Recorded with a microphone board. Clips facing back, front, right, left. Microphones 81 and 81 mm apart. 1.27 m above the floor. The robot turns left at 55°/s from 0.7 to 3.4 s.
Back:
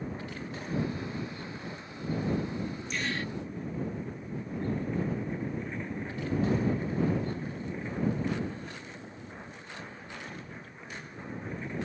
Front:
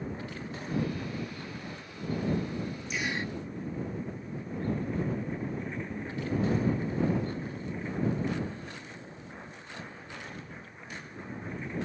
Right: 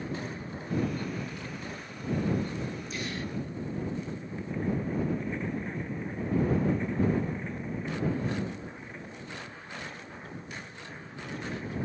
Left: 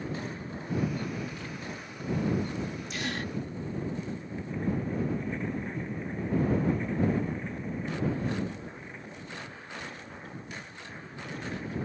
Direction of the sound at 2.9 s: 85° left.